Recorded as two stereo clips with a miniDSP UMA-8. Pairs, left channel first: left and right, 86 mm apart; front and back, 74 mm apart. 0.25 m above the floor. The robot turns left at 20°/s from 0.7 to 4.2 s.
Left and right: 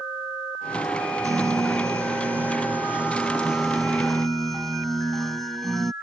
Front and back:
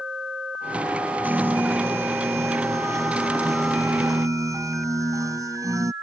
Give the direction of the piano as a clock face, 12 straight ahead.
4 o'clock.